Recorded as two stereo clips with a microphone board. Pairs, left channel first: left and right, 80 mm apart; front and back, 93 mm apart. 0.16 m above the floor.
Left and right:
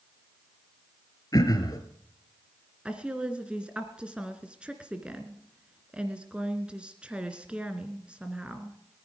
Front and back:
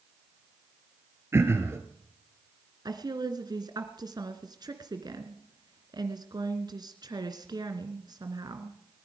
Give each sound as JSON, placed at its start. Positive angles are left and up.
{"t": 1.3, "sound": "throat clearing", "azimuth_deg": 120, "distance_m": 2.0}
{"t": 2.9, "sound": "a woman speaking", "azimuth_deg": -165, "distance_m": 2.0}